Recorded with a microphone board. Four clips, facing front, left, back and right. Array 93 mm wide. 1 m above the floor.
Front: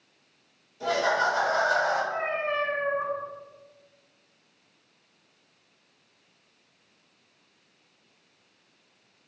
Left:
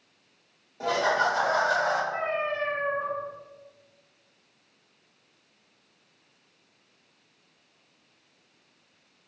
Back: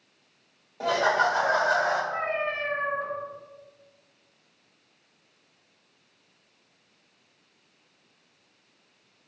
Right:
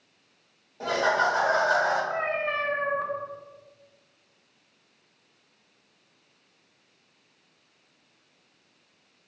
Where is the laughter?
175° right, 1.2 m; by 2.0 s 105° right, 1.5 m.